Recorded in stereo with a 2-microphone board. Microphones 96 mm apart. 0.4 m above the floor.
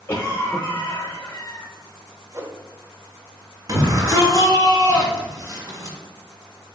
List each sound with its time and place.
0.1 s a cough: 25° left (ahead or behind), 0.8 m
2.3 s a whoosh: 30° right (ahead or behind), 0.6 m
3.7 s a shout: 45° right (ahead or behind), 1.7 m